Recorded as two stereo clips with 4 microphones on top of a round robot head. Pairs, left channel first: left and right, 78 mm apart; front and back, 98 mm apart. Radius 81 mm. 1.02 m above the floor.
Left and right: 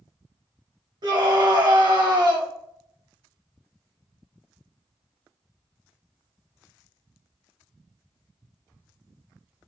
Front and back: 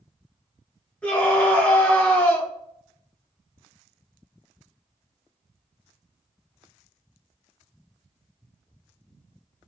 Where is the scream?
80° right, 1.3 m.